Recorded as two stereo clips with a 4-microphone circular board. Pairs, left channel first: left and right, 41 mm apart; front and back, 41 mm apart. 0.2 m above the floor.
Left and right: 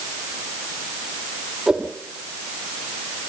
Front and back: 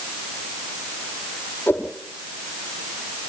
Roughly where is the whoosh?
Ahead.